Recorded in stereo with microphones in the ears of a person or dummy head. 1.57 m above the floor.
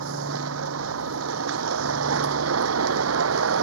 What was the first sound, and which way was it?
A vehicle, 85° right.